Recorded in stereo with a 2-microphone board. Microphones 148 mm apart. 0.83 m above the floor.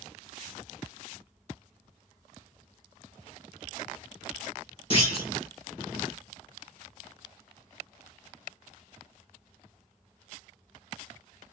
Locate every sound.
4.9 s a clunk: 35° left (ahead or behind), 1.5 m